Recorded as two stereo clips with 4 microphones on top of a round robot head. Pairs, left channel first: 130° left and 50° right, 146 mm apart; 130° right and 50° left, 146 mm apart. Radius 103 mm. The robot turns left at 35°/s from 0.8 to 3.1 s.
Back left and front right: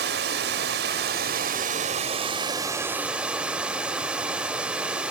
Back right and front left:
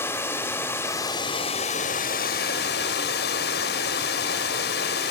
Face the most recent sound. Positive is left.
turn(degrees=-135)